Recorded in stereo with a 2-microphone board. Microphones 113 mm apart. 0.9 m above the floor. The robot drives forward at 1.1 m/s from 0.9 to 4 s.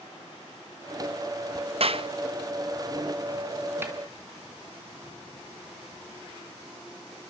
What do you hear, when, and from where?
1.8 s a clap: 60° right (ahead or behind), 0.6 m; by 2.1 s 50° right (ahead or behind), 0.7 m
3.8 s a snare drum: 20° right (ahead or behind), 3 m